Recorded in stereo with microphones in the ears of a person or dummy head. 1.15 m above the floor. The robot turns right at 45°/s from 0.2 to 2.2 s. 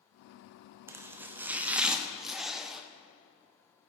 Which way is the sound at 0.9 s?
20° right (ahead or behind).